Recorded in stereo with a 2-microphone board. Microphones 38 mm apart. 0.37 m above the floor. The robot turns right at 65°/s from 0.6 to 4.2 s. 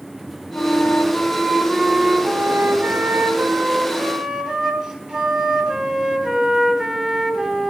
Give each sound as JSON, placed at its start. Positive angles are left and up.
{"t": 0.5, "sound": "a flute", "azimuth_deg": 110, "distance_m": 3.5}